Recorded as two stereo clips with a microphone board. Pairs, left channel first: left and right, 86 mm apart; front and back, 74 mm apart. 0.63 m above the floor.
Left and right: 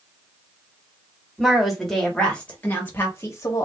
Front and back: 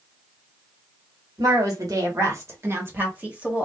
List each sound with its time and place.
1.4 s a woman speaking: straight behind, 1.6 m; by 3.7 s 105° left, 1.3 m